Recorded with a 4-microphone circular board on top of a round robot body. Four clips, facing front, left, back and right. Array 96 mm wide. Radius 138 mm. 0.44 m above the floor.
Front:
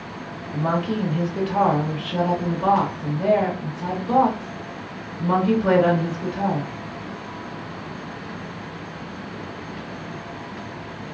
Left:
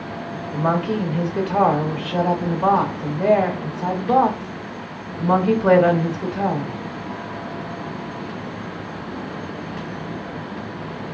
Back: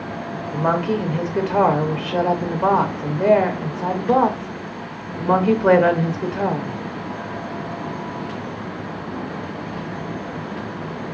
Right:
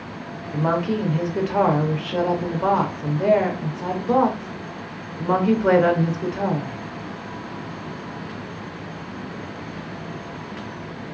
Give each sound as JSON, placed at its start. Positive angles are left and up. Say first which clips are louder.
{"t": 0.5, "sound": "a woman speaking", "louder": "left 1 dB, back 3 dB", "azimuth_deg": -170, "distance_m": 0.9}